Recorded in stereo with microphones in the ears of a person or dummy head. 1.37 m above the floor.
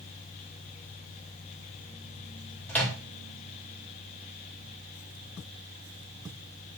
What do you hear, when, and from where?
2.7 s a microwave: 5° left (ahead or behind), 0.7 m